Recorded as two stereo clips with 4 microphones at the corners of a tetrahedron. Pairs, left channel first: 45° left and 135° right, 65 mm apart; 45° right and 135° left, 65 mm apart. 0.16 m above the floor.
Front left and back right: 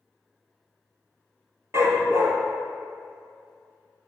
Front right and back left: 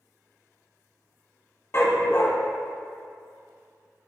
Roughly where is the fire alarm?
I don't hear a fire alarm.